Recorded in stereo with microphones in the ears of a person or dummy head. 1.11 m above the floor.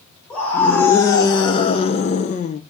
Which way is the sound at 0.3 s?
5° left (ahead or behind).